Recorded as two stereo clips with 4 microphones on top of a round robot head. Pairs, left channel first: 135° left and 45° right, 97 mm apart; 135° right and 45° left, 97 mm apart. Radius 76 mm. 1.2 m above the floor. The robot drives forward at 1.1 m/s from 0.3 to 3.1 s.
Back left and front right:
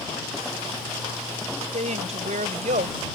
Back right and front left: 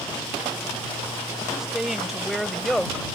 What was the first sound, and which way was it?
A woman speaking, 40° right.